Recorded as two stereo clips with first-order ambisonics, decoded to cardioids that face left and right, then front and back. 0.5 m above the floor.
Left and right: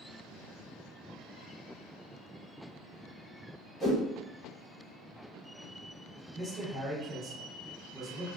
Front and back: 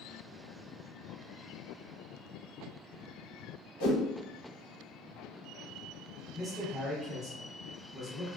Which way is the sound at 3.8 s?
Straight ahead.